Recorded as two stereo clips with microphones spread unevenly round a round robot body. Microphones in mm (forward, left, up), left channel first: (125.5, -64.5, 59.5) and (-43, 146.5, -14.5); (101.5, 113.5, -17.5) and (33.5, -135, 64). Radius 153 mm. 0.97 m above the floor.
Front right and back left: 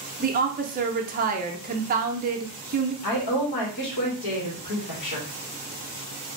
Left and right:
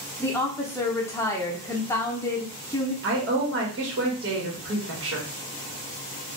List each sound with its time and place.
0.2 s a woman speaking: 130° left, 0.6 m
3.0 s a woman speaking: 60° right, 1.6 m